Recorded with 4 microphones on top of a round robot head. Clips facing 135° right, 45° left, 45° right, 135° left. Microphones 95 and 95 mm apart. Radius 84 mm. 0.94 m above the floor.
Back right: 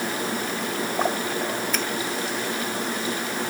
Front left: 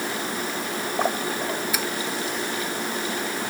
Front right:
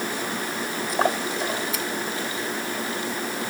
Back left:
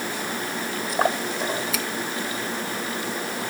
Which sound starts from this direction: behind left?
A finger snap, at 1.7 s.